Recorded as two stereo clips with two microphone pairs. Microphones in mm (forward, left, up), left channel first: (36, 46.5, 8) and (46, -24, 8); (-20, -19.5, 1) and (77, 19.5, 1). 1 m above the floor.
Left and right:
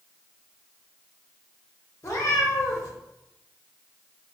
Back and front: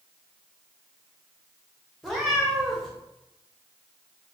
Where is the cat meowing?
110° left, 0.8 m.